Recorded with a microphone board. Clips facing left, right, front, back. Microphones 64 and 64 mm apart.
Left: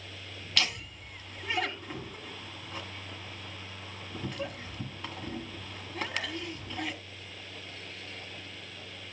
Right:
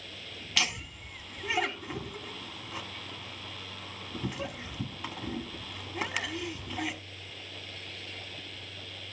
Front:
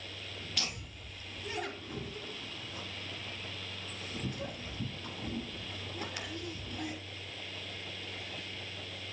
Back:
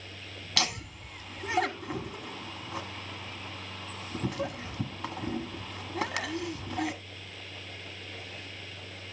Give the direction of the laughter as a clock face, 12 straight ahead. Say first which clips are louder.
Even, back 11 dB; 6 o'clock.